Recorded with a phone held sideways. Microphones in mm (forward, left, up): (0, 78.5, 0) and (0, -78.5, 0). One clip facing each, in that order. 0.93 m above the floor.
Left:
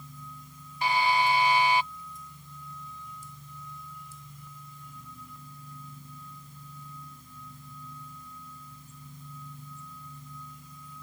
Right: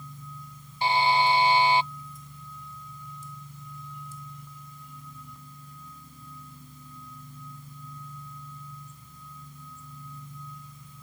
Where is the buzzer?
30° right (ahead or behind).